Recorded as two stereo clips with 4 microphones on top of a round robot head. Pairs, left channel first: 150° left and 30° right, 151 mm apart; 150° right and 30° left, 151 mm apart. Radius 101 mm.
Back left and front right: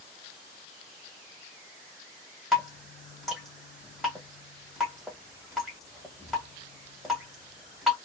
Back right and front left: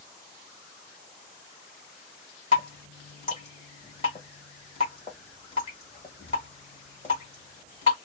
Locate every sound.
2.5 s dripping: 125° right, 0.9 m